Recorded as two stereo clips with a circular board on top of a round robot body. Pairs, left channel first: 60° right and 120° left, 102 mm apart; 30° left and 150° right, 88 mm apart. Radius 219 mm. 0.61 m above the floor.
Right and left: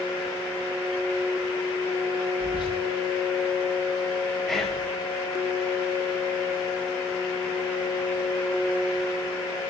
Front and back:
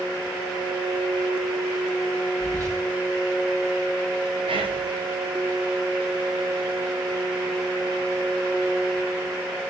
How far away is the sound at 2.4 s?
About 8 m.